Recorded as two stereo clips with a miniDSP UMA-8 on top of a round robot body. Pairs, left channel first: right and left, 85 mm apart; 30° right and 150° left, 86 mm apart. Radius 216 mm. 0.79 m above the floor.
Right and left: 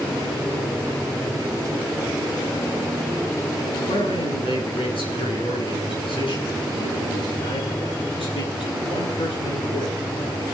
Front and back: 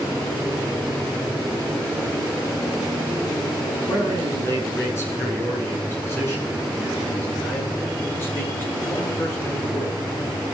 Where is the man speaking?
90° right, 9.5 m; by 10.4 s 95° right, 13 m.